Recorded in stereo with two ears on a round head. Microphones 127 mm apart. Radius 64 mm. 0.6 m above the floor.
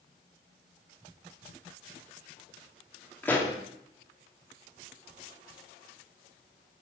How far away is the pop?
About 1.3 m.